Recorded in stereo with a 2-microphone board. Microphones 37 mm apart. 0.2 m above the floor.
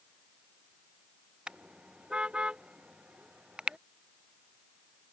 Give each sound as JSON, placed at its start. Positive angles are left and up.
{"t": 1.5, "sound": "a car horn", "side_deg": -25}